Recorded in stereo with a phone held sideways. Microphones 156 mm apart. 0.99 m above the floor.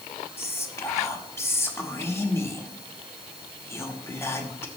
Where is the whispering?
15° left (ahead or behind), 1.3 m.